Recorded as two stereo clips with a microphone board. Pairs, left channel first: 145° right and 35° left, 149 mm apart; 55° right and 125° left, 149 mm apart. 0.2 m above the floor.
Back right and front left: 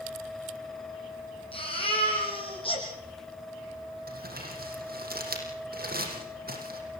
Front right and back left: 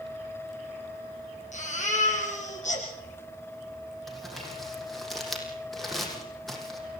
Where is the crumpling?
35° left, 6.5 m.